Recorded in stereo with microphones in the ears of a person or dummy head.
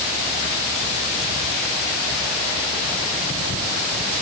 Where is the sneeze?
No sneeze in this recording.